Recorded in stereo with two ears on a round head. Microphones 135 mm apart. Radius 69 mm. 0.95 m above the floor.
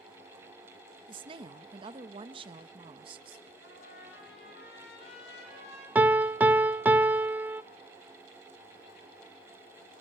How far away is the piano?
About 0.6 m.